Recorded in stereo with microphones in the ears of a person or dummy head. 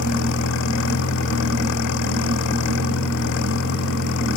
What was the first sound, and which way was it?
An engine running, 65° left (ahead or behind).